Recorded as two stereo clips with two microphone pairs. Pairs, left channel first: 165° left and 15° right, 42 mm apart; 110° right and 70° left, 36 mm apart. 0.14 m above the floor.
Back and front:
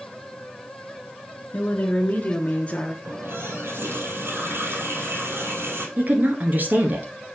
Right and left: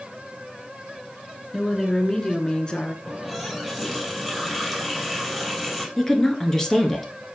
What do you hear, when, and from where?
1.5 s a woman speaking: 165° left, 1.7 m; by 3.0 s 150° right, 1.7 m
3.0 s a running tap: 20° right, 2.5 m
6.0 s a woman speaking: 35° right, 1.8 m